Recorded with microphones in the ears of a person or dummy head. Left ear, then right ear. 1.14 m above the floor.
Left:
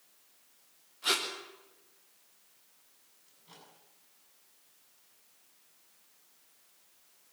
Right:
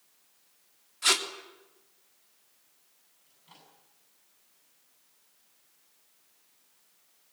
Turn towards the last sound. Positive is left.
turn(degrees=-25)  # may be behind; listen again after turning